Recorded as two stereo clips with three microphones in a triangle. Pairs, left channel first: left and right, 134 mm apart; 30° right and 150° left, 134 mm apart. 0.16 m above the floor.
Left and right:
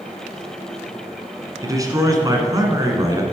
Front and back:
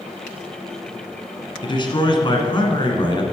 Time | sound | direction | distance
1.6 | a man speaking | 45° right | 1.3 m